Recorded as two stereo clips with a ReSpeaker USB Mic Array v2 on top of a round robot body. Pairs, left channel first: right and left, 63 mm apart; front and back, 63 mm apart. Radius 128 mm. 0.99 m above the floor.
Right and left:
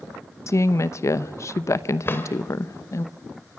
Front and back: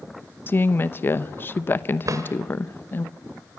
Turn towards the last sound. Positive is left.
turn(degrees=-145)